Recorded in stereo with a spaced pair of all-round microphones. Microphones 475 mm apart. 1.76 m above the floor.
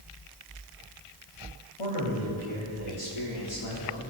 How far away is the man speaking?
About 3.5 m.